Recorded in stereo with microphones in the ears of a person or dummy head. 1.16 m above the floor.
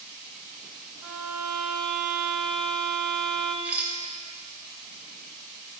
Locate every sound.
1.0 s a violin: 30° right (ahead or behind), 1.2 m
3.6 s a rattle: 10° right (ahead or behind), 1.3 m